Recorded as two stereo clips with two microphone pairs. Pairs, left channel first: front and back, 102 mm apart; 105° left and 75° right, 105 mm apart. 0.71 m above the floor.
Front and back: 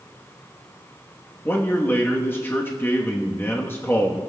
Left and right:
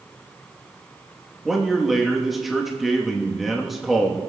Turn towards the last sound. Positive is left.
turn(degrees=15)